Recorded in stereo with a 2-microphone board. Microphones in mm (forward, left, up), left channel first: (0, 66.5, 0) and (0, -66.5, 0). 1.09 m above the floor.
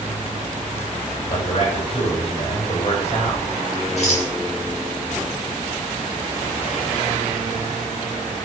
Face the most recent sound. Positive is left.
turn(degrees=55)  # may be behind; listen again after turning